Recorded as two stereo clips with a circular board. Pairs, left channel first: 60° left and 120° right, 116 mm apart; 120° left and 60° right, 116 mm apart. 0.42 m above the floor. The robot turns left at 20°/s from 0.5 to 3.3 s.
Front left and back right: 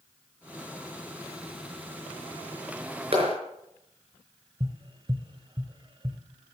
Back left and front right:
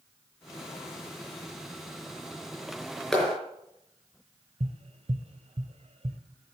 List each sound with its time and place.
3.1 s a clap: 155° right, 4.5 m; by 3.4 s 160° right, 4.5 m
4.6 s tapping: 75° right, 1.2 m